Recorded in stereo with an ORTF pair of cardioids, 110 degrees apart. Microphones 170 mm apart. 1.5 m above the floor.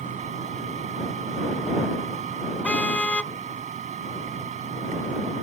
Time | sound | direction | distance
0.0 | a machine running | 45° right | ?
2.6 | a car horn | 10° left | ?